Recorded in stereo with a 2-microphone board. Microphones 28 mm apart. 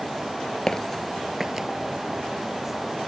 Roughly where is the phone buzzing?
I don't hear a phone buzzing.